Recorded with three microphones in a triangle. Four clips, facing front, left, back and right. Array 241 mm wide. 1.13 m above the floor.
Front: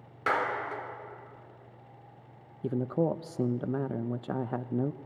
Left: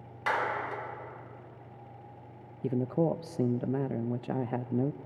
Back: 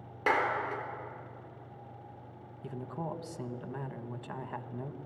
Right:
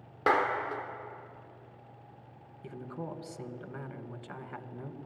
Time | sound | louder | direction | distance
0.3 | a clap | right 3 dB, even | 110° right | 3.5 m
2.6 | a man speaking | left 13 dB, front 11 dB | 50° left | 0.8 m